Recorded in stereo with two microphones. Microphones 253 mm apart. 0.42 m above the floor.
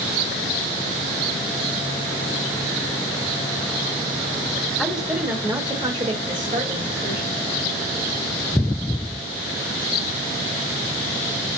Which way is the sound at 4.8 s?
Centre (ahead or behind).